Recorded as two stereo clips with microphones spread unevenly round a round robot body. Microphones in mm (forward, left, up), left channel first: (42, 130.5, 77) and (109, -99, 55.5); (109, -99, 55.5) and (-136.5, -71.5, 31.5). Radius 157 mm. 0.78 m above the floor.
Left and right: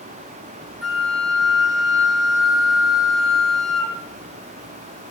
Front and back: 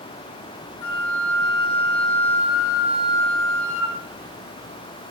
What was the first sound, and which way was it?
A flute, 15° left.